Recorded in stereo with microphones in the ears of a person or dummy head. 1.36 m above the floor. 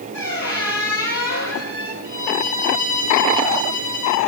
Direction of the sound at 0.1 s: 55° left (ahead or behind).